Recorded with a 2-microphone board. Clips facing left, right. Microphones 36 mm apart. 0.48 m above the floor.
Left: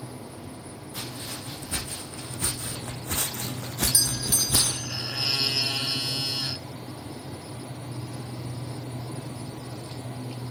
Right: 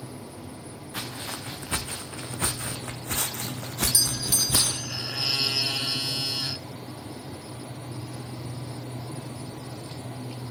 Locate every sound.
0.9 s footsteps: 55° right (ahead or behind), 3 m; by 4.8 s 30° right (ahead or behind), 1.3 m
3.9 s a doorbell: 20° left (ahead or behind), 2.5 m